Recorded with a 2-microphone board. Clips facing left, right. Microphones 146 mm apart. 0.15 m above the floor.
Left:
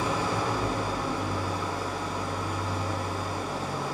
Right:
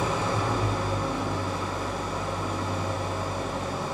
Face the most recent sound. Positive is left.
turn(degrees=-20)  # may be behind; listen again after turning